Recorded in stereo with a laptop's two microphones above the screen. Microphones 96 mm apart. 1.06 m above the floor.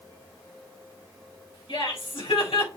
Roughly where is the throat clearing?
No throat clearing in this recording.